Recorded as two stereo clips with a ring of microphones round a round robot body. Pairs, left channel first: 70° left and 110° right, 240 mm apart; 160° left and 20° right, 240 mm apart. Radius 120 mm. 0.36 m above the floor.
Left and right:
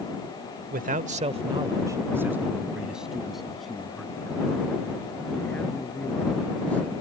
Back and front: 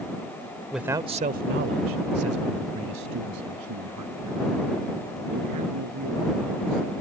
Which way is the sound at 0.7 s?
110° right.